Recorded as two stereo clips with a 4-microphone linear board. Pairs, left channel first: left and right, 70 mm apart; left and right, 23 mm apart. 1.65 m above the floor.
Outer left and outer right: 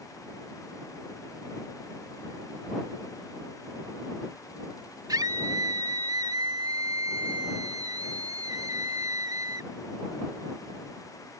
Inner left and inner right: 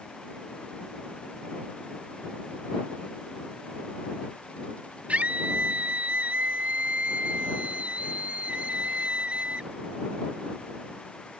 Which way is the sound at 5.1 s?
70° right (ahead or behind).